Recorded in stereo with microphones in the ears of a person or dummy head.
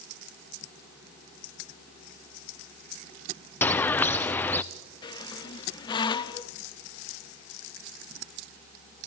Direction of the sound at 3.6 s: 15° left (ahead or behind).